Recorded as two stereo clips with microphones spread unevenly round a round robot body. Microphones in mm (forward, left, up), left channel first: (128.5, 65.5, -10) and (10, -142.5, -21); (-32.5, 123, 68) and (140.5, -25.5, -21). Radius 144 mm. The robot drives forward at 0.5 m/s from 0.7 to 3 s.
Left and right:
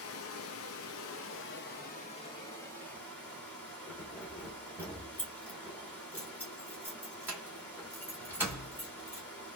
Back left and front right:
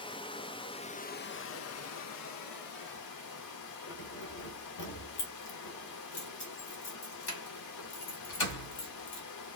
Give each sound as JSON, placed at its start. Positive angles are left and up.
{"t": 0.0, "sound": "running water", "azimuth_deg": 55, "distance_m": 0.7}
{"t": 3.9, "sound": "keys jangling", "azimuth_deg": 155, "distance_m": 1.3}